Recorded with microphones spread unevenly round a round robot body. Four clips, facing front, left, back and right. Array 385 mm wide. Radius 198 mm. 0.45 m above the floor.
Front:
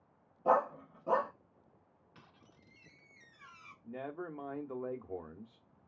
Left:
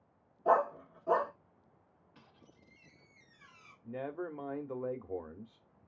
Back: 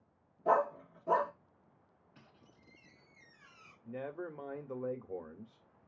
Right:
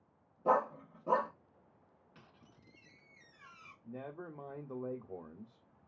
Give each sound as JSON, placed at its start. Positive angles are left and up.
{"t": 0.5, "sound": "a dog barking", "azimuth_deg": -60, "distance_m": 1.5}
{"t": 2.1, "sound": "a squeak", "azimuth_deg": -35, "distance_m": 1.7}
{"t": 3.8, "sound": "a man speaking", "azimuth_deg": 90, "distance_m": 0.8}